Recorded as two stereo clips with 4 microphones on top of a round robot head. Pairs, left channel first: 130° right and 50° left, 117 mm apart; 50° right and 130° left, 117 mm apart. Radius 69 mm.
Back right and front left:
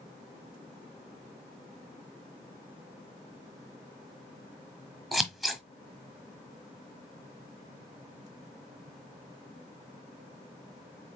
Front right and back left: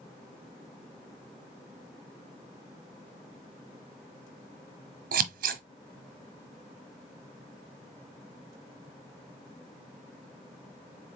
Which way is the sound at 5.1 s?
140° left.